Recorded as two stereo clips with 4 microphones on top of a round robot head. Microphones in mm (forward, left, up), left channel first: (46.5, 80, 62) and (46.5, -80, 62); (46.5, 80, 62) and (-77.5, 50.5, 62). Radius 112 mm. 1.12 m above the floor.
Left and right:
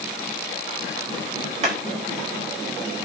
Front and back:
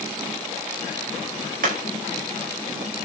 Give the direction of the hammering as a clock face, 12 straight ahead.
5 o'clock.